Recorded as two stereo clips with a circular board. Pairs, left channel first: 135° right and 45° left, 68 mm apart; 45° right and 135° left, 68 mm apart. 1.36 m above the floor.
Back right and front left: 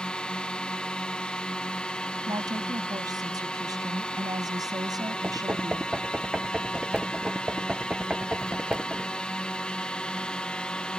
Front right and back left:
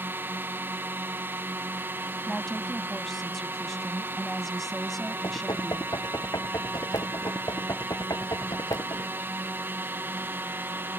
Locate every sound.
0.0 s a drone: 160° left
2.3 s a woman speaking: 45° left
5.2 s knocking: 30° right